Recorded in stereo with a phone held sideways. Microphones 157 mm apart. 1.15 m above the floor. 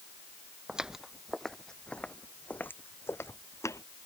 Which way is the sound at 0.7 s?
5° right (ahead or behind).